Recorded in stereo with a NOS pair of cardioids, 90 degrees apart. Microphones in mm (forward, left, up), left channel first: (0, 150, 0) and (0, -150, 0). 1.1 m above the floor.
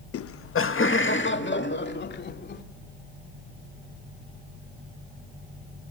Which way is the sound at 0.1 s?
55° left.